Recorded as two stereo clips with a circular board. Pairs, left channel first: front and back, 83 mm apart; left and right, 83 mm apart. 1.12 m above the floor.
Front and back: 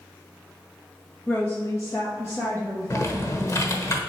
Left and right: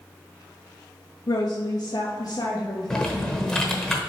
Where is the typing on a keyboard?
10° left, 1.0 m.